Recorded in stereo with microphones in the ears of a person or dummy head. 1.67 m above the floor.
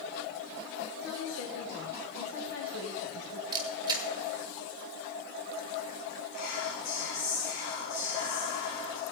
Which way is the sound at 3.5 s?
25° right (ahead or behind).